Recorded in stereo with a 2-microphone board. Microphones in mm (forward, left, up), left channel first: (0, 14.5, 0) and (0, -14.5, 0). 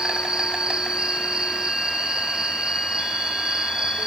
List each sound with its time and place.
0.0 s an insect: 25° right (ahead or behind), 2.5 m